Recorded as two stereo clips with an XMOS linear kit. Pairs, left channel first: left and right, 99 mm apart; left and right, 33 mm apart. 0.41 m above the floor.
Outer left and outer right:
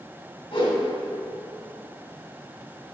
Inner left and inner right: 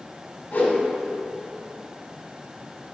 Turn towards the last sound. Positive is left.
turn(degrees=55)  # may be behind; listen again after turning